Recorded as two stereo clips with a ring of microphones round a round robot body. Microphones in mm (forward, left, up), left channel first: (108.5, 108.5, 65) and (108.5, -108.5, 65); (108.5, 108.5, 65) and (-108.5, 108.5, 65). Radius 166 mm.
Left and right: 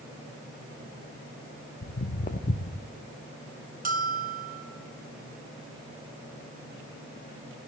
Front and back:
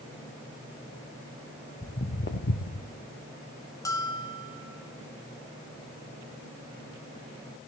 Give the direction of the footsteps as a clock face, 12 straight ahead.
10 o'clock.